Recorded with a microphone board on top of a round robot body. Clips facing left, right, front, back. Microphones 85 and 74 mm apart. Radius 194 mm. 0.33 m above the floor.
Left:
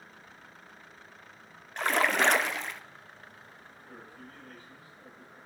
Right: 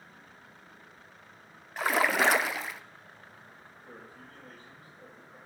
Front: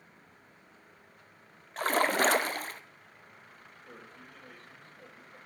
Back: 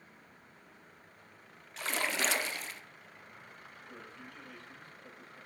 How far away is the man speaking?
About 6 m.